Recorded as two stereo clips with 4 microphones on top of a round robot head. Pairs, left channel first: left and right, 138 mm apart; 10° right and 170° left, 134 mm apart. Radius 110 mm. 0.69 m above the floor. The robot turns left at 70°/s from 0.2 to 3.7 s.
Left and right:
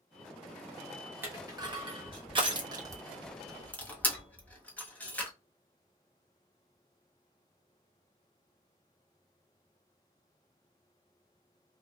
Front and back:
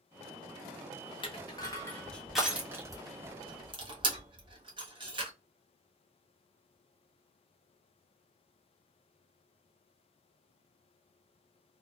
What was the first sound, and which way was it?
Crushing, 25° right.